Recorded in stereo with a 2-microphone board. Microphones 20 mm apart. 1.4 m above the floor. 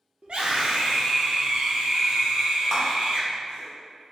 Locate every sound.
0.2 s a scream: 60° right (ahead or behind), 1.0 m
2.7 s a clap: 15° right (ahead or behind), 1.2 m